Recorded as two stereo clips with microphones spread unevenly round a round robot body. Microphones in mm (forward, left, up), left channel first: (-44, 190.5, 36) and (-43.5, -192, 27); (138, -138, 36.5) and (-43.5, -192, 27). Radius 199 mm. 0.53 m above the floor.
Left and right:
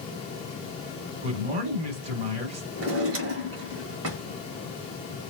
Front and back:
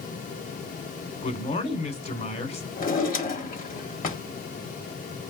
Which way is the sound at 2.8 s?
30° right.